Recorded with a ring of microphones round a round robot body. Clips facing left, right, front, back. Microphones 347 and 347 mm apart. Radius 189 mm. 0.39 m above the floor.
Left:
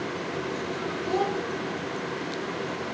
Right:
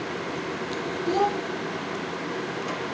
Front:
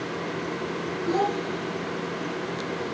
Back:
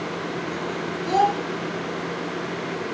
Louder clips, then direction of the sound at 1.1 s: Right 2 dB, even; 175° left.